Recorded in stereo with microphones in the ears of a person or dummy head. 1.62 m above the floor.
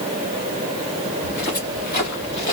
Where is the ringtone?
I don't hear a ringtone.